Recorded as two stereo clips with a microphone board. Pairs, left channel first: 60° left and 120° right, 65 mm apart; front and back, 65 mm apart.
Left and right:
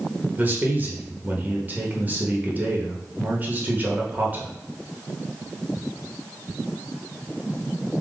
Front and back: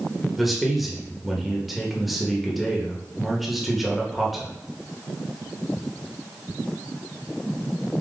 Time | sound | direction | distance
0.4 | a man speaking | 95° right | 0.9 m